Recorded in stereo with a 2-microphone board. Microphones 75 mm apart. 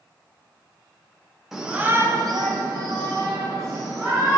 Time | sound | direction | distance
1.5 | a shout | 5° right (ahead or behind) | 1.1 m